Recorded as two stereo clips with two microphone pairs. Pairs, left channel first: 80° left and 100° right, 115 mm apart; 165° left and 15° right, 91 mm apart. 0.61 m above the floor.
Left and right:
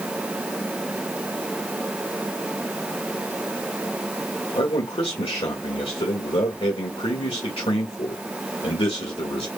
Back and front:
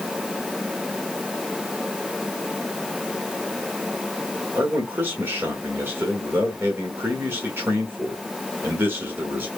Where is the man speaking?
45° left, 1.6 m.